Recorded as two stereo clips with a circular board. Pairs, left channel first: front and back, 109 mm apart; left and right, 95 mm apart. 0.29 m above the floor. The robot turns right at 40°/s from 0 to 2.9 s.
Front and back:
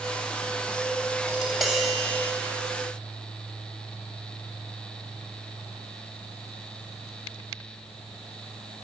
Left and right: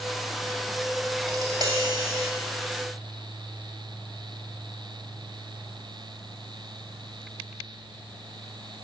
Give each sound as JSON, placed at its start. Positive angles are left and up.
{"t": 1.3, "sound": "tapping", "azimuth_deg": -105, "distance_m": 1.8}